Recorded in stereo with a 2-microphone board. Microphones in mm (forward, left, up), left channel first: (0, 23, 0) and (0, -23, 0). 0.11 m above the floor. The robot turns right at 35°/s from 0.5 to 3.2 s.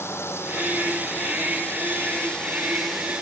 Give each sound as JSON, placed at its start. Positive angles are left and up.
{"t": 0.0, "sound": "a drone", "azimuth_deg": 95}